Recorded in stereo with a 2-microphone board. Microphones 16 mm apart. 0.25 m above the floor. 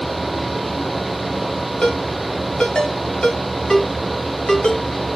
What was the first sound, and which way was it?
A ringtone, 80° left.